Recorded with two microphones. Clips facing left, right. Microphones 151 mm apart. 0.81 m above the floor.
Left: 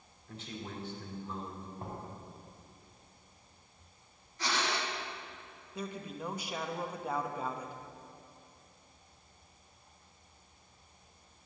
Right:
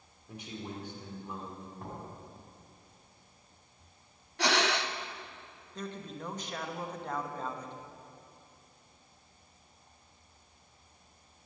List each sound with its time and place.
0.3 s a man speaking: 15° right (ahead or behind), 2.5 m
1.8 s knocking: 25° left (ahead or behind), 4.5 m
4.4 s breathing: 75° right (ahead or behind), 0.6 m
5.8 s a man speaking: 10° left (ahead or behind), 1.0 m